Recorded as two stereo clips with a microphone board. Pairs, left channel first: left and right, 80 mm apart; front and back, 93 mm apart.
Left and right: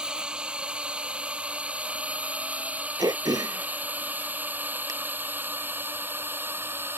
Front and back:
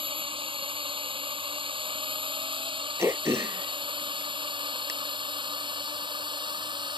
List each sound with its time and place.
0.0 s a drone: 170° right; by 7.0 s 150° right
3.0 s throat clearing: 120° right